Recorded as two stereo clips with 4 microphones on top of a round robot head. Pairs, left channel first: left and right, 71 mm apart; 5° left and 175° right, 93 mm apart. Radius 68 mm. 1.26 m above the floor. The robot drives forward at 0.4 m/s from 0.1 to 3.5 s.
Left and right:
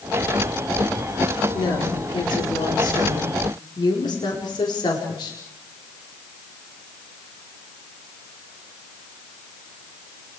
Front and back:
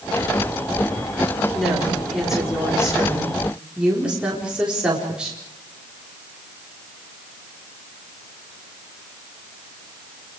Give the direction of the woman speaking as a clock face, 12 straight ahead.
9 o'clock.